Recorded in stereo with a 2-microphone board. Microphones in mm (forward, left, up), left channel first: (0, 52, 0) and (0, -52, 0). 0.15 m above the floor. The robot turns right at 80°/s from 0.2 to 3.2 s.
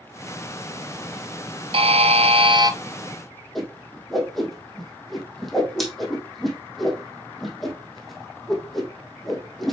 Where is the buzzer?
115° right, 0.8 m; by 2.8 s 35° right, 0.8 m.